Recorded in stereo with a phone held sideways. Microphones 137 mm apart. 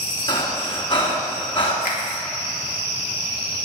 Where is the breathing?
40° left (ahead or behind), 2.5 m.